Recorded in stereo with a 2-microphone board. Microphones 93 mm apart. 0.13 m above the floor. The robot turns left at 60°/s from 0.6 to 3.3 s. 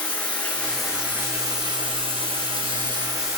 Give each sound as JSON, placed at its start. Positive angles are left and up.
{"t": 0.0, "sound": "running water", "azimuth_deg": 15, "distance_m": 1.8}